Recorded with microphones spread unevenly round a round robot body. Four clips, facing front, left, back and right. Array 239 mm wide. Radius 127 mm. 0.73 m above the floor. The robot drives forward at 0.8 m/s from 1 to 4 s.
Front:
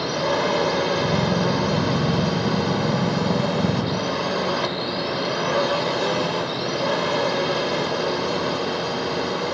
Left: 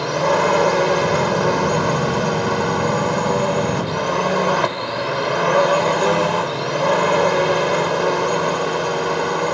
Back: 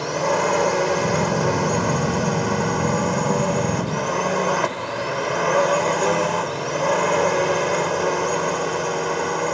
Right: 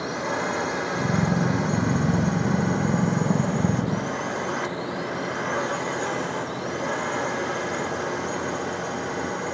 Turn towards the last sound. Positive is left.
turn(degrees=105)